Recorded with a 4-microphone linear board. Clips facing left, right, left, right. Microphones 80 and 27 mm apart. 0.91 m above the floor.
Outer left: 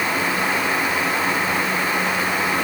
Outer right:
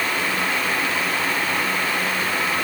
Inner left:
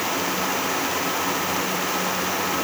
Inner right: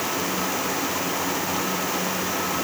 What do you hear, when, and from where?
Only background noise.